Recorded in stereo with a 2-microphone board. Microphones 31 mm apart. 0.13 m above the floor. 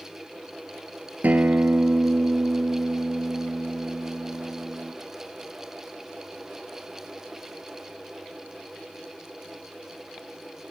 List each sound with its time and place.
1.2 s a guitar: 65° right (ahead or behind), 1.0 m